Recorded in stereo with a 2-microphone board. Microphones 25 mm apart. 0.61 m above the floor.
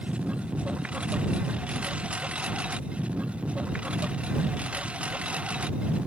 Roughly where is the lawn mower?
Right.